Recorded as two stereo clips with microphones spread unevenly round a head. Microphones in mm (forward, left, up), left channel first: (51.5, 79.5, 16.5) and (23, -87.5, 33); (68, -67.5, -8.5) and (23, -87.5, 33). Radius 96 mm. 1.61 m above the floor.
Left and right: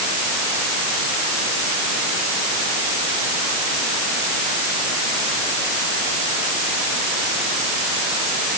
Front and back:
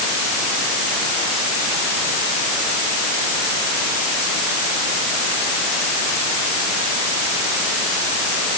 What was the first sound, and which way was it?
Only background noise.